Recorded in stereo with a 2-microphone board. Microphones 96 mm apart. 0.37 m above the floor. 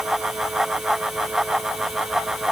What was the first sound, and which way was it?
Only background noise.